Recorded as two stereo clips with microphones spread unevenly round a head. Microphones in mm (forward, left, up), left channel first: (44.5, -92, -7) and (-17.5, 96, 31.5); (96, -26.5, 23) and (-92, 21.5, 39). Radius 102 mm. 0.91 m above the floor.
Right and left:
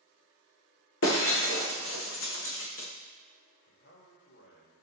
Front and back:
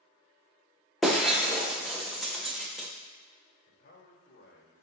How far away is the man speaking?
About 4.5 m.